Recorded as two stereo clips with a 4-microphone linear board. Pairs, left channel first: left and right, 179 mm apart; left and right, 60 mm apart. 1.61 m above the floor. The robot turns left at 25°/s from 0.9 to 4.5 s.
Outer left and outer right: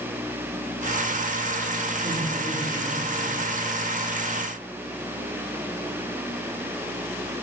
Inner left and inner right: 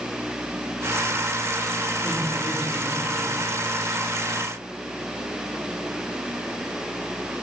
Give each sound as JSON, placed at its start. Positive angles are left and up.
{"t": 2.0, "sound": "laughter", "side_deg": -55, "distance_m": 5.0}